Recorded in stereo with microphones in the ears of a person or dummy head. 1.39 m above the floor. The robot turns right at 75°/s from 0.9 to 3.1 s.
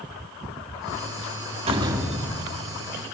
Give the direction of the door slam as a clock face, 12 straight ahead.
1 o'clock.